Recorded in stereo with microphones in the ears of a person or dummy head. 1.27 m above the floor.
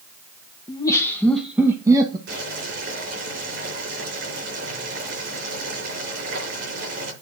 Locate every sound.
0.7 s laughter: 25° left (ahead or behind), 1.3 m; by 2.2 s 25° right (ahead or behind), 1.3 m
2.3 s boiling: 65° right (ahead or behind), 5 m